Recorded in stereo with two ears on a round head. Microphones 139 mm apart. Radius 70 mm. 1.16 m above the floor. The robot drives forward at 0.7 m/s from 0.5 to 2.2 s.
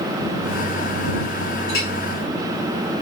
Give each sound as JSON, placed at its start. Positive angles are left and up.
{"t": 1.7, "sound": "a clink", "side_deg": 60, "distance_m": 3.5}